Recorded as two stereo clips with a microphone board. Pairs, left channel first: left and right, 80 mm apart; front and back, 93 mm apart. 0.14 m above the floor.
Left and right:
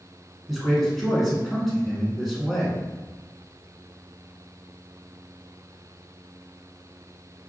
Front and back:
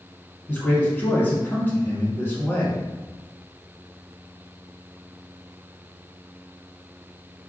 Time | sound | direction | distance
0.5 | a man speaking | 5° right | 1.2 m